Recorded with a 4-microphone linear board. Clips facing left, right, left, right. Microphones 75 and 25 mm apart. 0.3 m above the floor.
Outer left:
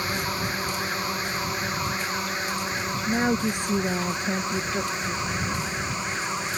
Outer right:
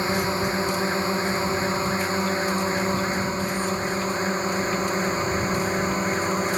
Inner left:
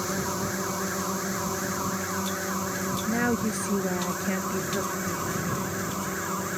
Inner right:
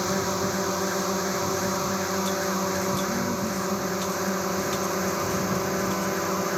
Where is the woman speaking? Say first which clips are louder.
Outer left 2 dB, inner left 1 dB; 75° left (ahead or behind).